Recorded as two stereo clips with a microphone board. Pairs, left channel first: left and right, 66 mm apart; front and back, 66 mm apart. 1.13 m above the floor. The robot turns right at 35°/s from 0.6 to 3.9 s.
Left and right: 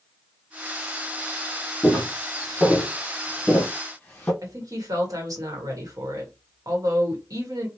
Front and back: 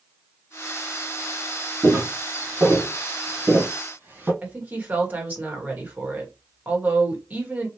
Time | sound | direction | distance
1.8 | footsteps | 170° left | 1.3 m
4.4 | a woman speaking | 115° right | 1.3 m